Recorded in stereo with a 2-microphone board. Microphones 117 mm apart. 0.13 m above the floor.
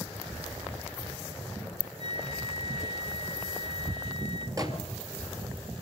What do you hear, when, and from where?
2.0 s a flute: 40° right (ahead or behind), 1.2 m
4.6 s a microwave: 30° right (ahead or behind), 2.5 m